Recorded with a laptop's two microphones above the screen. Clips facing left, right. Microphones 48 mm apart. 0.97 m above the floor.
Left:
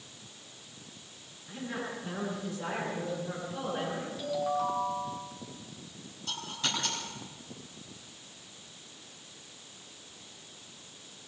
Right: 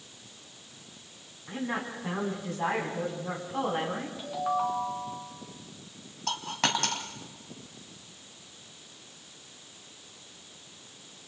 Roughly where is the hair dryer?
I don't hear a hair dryer.